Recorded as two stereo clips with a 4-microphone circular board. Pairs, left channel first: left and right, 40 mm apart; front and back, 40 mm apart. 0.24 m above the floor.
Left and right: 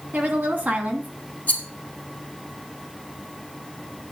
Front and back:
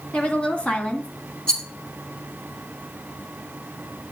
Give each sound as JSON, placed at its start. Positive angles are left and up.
{"t": 0.1, "sound": "a woman speaking", "azimuth_deg": -50, "distance_m": 2.5}
{"t": 1.5, "sound": "a rattle", "azimuth_deg": 60, "distance_m": 2.0}